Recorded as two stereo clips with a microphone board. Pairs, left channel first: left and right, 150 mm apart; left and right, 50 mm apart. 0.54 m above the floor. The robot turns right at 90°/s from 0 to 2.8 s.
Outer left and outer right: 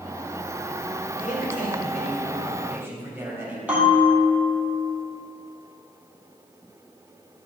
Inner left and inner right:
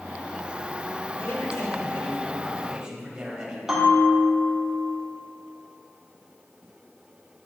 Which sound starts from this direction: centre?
A bell, at 3.7 s.